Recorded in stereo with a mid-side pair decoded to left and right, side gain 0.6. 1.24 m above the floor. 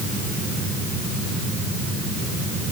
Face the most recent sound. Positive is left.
No sound to turn to.